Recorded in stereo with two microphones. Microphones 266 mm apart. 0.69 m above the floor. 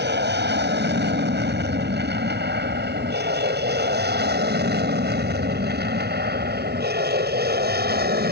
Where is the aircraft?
40° right (ahead or behind); by 8.3 s 35° right (ahead or behind).